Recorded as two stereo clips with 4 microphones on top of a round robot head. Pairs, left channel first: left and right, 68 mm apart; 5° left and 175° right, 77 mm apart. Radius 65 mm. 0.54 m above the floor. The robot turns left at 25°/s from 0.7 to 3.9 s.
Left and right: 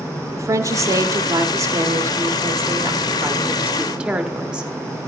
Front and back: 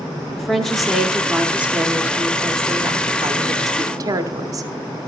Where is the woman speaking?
85° right, 0.9 m; by 4.7 s 165° right, 0.9 m.